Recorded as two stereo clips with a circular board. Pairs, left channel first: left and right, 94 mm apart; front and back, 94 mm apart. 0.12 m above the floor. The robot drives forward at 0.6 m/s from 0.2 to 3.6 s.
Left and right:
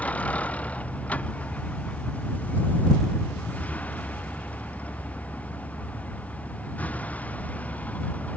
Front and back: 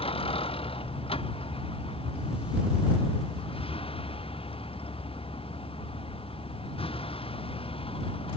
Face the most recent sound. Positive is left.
turn(degrees=15)